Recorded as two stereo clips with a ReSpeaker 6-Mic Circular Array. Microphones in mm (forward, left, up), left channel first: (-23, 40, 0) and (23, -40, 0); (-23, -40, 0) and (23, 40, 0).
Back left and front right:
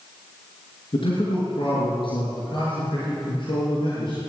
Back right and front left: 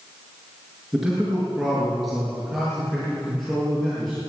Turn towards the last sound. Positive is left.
turn(degrees=155)